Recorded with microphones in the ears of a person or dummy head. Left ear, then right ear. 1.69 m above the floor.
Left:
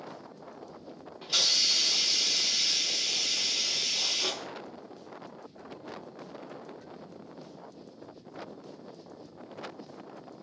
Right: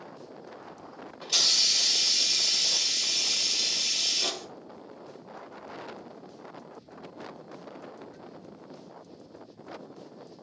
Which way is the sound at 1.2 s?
25° right (ahead or behind).